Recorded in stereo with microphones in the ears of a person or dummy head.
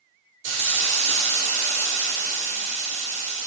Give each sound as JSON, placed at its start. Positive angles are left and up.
{"t": 0.4, "sound": "a hiss", "side_deg": -75, "distance_m": 1.2}